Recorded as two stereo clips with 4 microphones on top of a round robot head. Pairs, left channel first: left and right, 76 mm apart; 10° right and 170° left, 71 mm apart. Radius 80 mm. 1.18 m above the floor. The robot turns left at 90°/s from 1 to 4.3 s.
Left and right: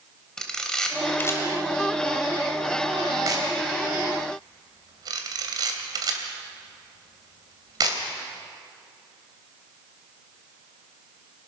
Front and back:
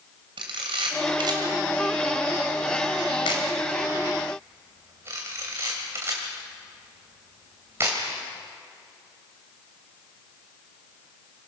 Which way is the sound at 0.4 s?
175° left.